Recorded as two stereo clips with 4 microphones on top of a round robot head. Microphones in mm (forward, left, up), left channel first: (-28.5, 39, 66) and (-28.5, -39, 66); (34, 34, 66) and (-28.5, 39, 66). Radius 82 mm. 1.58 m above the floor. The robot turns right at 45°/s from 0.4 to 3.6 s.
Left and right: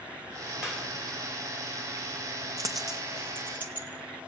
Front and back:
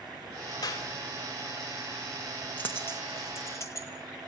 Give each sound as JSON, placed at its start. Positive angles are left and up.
{"t": 0.6, "sound": "a clap", "azimuth_deg": -10, "distance_m": 3.5}
{"t": 2.6, "sound": "a dropped coin", "azimuth_deg": -70, "distance_m": 0.9}